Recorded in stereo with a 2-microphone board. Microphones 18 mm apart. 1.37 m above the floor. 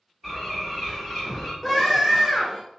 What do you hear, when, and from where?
0.2 s a bird: 5° right (ahead or behind), 1.7 m
1.6 s a scream: centre (ahead or behind), 1.2 m